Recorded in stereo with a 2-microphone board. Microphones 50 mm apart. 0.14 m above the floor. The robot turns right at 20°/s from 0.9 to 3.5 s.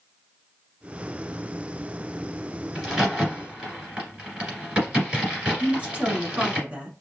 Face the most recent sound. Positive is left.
turn(degrees=-25)  # may be behind; listen again after turning